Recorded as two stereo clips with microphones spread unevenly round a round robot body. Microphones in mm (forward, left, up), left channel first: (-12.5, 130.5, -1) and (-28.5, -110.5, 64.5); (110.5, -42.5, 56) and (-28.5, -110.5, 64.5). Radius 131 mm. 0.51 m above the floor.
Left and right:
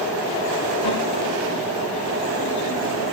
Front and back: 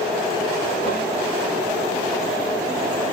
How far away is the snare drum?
About 10 m.